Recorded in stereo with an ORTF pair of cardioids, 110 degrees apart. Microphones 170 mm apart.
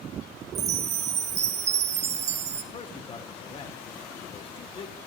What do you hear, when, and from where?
0.6 s a chime: 40° right, 1.2 m
2.7 s a man speaking: 35° left, 1.1 m